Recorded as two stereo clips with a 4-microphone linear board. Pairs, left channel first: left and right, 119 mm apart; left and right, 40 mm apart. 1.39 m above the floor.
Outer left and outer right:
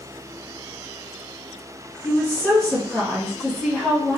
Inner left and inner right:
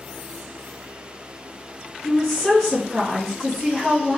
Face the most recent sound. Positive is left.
turn(degrees=5)  # may be behind; listen again after turning